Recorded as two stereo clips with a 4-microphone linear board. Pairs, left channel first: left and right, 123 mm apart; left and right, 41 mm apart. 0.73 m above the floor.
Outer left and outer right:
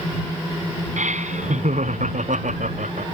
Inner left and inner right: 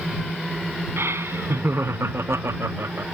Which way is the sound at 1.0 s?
80° right.